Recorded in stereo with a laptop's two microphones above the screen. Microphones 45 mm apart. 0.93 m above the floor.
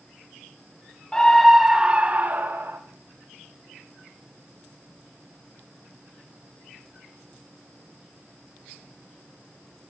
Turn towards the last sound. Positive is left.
turn(degrees=-50)  # may be behind; listen again after turning